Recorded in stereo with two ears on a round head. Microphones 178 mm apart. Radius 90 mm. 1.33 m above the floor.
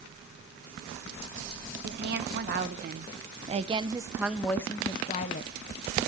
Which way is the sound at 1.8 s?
55° right (ahead or behind).